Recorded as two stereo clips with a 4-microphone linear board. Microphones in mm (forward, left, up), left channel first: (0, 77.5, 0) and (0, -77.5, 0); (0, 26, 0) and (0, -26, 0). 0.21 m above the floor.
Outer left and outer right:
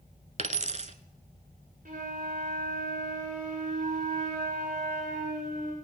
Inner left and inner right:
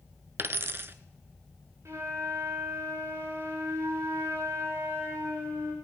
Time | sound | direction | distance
0.4 | a dropped coin | 50° right (ahead or behind) | 0.7 m
1.9 | a flute | 55° right (ahead or behind) | 8 m